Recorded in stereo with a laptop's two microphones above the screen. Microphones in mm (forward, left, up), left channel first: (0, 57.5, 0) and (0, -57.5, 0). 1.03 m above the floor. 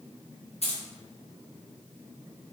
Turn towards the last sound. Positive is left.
turn(degrees=65)  # may be behind; listen again after turning